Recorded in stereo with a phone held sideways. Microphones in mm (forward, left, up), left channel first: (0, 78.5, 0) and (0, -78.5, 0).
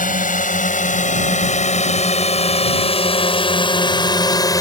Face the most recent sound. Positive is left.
turn(degrees=25)  # may be behind; listen again after turning